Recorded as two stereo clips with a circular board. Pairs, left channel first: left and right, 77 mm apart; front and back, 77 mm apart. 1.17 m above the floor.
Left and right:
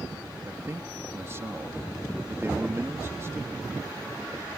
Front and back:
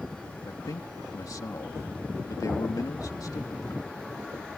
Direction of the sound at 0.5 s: 35° right.